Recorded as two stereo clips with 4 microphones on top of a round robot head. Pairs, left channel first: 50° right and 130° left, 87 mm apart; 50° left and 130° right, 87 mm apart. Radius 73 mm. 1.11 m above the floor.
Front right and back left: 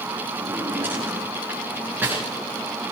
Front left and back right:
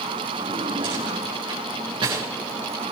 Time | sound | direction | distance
0.4 | a drawer | 165° right | 8.5 m